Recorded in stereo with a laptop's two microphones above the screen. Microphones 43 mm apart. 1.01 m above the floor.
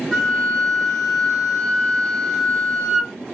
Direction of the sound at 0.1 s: Centre (ahead or behind).